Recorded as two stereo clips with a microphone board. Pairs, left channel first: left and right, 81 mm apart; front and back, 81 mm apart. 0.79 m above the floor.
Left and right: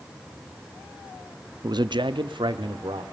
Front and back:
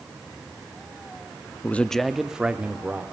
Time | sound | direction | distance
1.6 | a man speaking | 65° right | 0.7 m